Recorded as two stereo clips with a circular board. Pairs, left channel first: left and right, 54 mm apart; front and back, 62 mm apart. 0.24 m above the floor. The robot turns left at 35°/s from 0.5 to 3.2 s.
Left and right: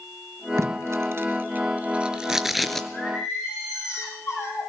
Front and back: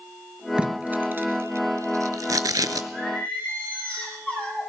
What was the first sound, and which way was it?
Tape being pulled, 105° right.